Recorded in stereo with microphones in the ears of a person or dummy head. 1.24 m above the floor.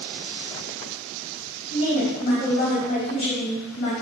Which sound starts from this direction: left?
A woman speaking, at 1.7 s.